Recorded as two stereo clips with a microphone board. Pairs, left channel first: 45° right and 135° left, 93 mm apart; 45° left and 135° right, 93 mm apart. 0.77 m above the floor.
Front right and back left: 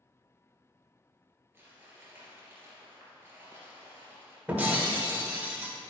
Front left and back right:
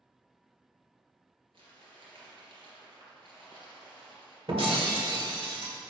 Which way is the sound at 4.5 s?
155° right.